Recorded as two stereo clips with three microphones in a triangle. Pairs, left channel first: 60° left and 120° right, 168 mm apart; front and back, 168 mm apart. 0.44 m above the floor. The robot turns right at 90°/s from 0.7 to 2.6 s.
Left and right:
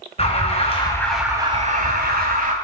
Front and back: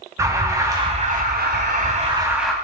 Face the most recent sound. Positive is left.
turn(degrees=-80)